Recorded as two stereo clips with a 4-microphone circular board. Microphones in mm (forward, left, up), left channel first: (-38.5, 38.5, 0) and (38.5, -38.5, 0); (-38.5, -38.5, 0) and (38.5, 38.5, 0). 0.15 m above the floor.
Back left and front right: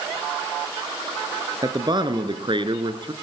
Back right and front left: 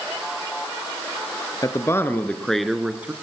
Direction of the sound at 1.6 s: 85° right.